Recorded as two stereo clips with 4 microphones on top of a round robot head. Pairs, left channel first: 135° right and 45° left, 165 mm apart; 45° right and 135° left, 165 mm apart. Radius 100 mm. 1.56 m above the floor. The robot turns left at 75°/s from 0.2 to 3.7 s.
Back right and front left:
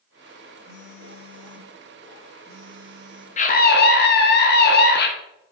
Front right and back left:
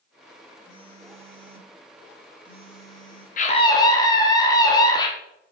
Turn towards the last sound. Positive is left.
turn(degrees=-115)